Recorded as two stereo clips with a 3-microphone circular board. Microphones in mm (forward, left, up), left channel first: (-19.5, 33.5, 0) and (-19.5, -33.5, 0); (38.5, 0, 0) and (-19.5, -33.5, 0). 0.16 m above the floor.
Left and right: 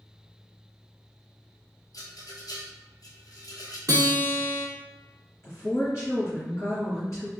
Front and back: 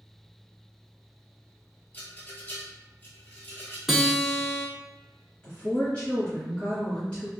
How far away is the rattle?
About 1.0 m.